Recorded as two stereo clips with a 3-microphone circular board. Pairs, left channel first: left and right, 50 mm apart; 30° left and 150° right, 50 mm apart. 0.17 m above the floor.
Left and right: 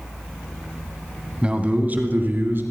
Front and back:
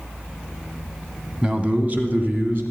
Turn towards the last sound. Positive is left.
turn(degrees=-115)